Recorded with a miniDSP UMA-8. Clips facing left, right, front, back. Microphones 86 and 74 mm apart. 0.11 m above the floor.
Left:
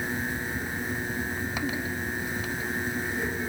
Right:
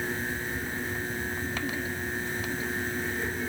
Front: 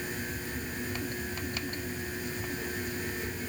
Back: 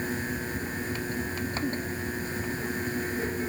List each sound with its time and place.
Only background noise.